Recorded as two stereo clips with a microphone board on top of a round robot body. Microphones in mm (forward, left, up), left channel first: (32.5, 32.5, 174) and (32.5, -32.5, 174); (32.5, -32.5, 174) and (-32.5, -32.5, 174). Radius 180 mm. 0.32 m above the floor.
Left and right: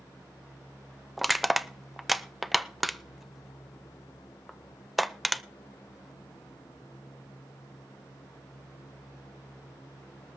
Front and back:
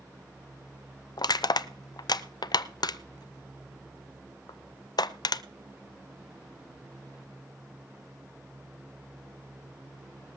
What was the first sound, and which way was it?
Crushing, straight ahead.